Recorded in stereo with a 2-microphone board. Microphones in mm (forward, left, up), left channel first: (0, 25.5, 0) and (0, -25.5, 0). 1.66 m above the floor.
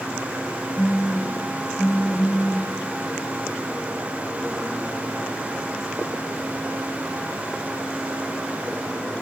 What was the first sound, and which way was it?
A phone buzzing, 15° left (ahead or behind).